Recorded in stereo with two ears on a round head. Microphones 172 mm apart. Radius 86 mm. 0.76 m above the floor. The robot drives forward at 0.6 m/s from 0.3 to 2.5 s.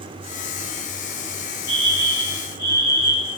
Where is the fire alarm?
25° left (ahead or behind), 9.5 m.